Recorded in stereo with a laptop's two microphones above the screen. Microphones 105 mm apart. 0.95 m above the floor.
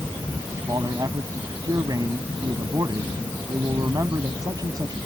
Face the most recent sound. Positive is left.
turn(degrees=-35)  # may be behind; listen again after turning